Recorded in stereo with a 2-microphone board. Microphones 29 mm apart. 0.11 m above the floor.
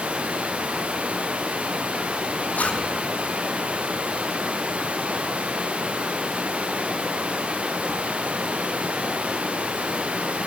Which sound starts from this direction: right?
Running water, at 0.0 s.